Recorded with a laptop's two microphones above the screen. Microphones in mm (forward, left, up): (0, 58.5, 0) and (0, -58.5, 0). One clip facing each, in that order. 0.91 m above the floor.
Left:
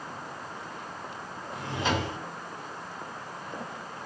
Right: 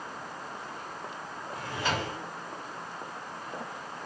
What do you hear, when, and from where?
1.5 s a drawer: 20° left (ahead or behind), 0.8 m